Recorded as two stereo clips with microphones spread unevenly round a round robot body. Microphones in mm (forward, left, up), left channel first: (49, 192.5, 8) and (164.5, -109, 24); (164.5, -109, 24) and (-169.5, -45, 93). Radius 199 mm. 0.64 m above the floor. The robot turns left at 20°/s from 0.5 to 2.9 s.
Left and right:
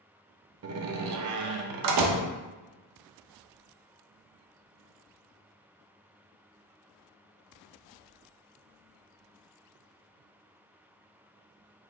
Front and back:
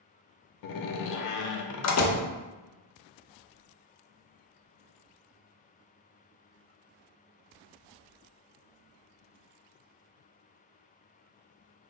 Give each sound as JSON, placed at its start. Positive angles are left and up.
{"t": 0.6, "sound": "a door slam", "azimuth_deg": -20, "distance_m": 0.6}